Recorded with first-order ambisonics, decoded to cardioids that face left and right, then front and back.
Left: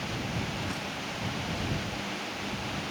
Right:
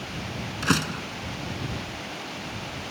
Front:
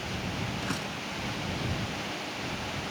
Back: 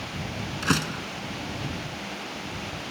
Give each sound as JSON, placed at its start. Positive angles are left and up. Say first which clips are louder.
{"t": 0.6, "sound": "a door slam", "louder": "right 8 dB, back 7 dB", "azimuth_deg": -125}